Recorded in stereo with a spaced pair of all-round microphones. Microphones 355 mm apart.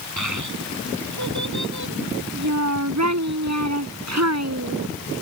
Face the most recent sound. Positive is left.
turn(degrees=-45)  # may be behind; listen again after turning